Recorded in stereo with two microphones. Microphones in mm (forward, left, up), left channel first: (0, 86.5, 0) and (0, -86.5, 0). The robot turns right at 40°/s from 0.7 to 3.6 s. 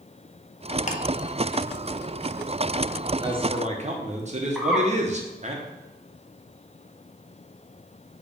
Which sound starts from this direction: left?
Ticking, at 0.9 s.